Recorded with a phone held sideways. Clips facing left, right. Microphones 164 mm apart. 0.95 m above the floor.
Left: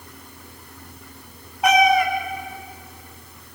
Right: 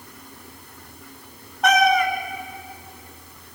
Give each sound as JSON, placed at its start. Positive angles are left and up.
{"t": 1.6, "sound": "a cat meowing", "side_deg": 10, "distance_m": 2.0}